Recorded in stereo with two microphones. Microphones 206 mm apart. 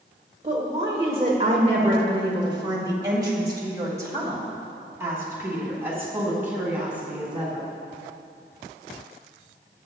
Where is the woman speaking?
30° right (ahead or behind), 1.4 m; by 7.7 s 5° right (ahead or behind), 4 m.